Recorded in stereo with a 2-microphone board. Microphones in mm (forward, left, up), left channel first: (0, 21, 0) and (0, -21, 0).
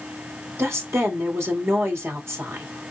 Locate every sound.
0.6 s a woman speaking: 85° right, 2.0 m